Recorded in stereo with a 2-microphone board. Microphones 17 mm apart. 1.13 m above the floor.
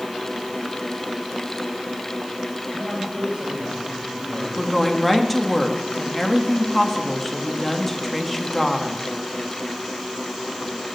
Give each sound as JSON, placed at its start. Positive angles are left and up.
{"t": 2.7, "sound": "a man speaking", "side_deg": -85, "distance_m": 5.0}
{"t": 4.6, "sound": "a woman speaking", "side_deg": 5, "distance_m": 2.0}